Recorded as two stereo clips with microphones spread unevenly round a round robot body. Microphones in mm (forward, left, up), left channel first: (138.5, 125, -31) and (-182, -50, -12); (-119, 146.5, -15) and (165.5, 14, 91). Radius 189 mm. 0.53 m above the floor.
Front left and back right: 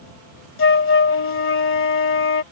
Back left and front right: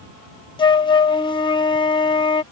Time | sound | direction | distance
0.6 | a flute | 85° left | ?